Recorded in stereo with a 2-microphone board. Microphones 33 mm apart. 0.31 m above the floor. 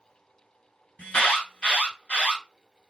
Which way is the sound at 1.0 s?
45° left (ahead or behind).